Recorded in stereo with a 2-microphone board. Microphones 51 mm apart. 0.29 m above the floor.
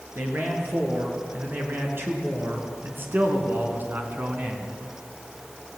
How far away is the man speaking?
About 6 m.